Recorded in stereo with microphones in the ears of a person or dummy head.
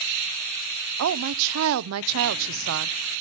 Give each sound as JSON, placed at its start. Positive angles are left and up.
{"t": 1.0, "sound": "a woman speaking", "side_deg": -80, "distance_m": 0.6}